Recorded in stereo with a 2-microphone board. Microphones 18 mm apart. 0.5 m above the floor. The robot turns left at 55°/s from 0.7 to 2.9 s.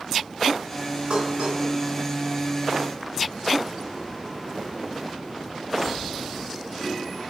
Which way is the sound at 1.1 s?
80° right.